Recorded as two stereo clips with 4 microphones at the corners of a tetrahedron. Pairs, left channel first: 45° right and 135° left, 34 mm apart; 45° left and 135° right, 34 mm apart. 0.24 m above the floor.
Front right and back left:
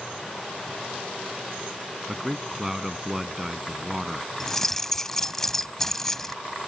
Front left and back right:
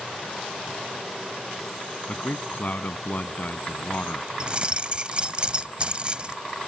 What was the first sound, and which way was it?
A man speaking, 60° left.